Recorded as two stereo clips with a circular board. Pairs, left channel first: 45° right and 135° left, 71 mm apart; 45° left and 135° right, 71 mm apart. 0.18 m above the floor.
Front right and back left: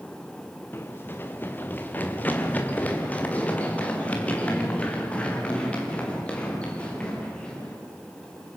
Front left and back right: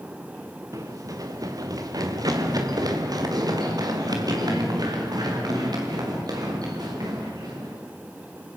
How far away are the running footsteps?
About 2 m.